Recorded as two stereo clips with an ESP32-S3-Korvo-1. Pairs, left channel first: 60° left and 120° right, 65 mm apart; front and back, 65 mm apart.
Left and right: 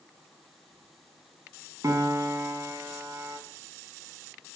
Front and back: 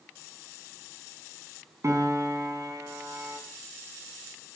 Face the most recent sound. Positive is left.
turn(degrees=-145)